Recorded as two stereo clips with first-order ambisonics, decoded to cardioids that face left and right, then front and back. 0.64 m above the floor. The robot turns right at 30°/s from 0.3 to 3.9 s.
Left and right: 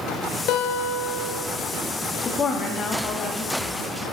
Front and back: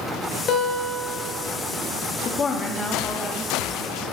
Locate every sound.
0.5 s a guitar: 55° left, 0.8 m; by 1.4 s 80° left, 0.8 m
2.2 s a woman speaking: 45° left, 0.9 m; by 4.0 s 95° left, 0.9 m